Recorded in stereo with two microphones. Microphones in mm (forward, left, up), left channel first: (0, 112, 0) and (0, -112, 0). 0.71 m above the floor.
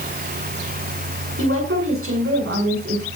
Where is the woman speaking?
75° right (ahead or behind), 7.5 m.